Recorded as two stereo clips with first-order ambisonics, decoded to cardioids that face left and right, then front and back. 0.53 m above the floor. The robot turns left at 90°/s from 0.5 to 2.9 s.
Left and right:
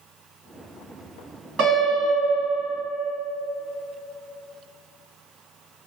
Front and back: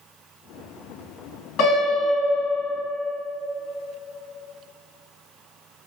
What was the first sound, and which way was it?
A piano, 35° right.